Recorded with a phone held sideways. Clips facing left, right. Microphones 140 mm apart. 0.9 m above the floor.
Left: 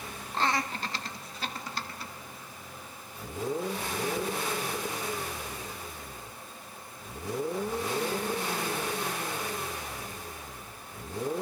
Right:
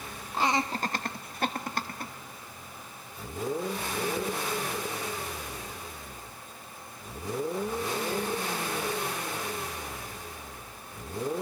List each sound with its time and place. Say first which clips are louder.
0.3 s laughter: right 2 dB; 5° right (ahead or behind), 0.8 m; by 2.1 s 50° right (ahead or behind), 1.9 m